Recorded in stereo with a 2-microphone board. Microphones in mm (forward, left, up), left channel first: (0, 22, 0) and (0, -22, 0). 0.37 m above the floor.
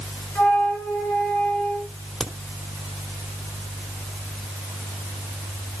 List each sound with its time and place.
0.3 s a flute: 60° left (ahead or behind), 3.5 m
2.2 s a crack: 5° left (ahead or behind), 1.6 m